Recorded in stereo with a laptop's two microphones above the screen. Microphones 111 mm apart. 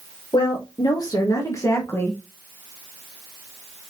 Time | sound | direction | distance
0.3 | a woman speaking | 40° left (ahead or behind) | 1.7 m